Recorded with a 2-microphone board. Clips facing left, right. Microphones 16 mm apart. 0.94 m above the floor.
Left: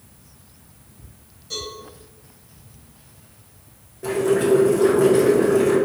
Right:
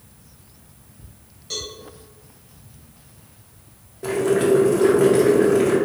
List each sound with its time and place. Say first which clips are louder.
1.5 s a cowbell: even; 40° right (ahead or behind), 1.4 m
4.0 s boiling: even; 15° right (ahead or behind), 0.7 m